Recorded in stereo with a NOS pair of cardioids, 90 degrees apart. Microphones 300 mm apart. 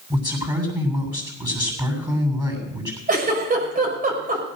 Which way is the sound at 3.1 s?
30° right.